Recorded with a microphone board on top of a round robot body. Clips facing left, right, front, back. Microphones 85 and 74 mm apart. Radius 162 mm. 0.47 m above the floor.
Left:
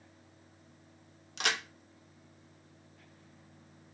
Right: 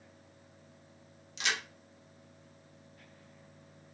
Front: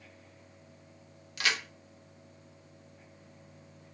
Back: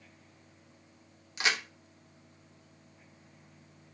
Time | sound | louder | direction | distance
1.4 | a crack | left 1 dB, back 1 dB | 115° left | 0.9 m